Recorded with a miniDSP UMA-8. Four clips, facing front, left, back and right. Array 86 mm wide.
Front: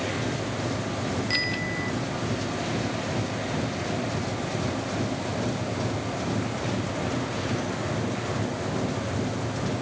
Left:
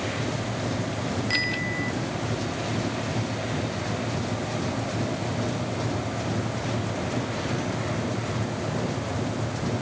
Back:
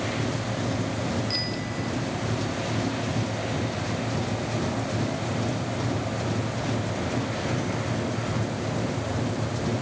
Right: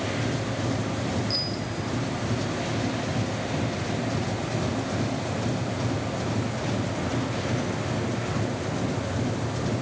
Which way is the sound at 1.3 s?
60° left.